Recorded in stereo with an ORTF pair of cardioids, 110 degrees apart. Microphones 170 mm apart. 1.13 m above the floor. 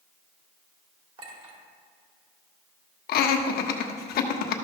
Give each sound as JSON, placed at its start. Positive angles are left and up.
{"t": 1.2, "sound": "a clink", "azimuth_deg": -35, "distance_m": 2.5}
{"t": 3.1, "sound": "laughter", "azimuth_deg": 65, "distance_m": 1.1}